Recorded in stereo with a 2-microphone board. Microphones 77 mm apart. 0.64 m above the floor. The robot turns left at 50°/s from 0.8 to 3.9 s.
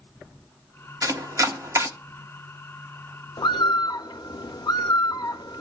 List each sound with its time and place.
1.0 s chopping: 50° right (ahead or behind), 1.4 m; by 1.9 s 35° right (ahead or behind), 1.4 m
3.4 s a bird: 85° left, 0.6 m; by 5.6 s 65° left (ahead or behind), 0.6 m